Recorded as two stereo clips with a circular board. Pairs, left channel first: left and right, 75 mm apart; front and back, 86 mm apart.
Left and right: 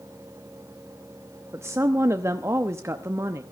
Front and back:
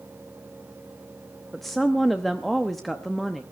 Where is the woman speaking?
85° right, 0.7 m.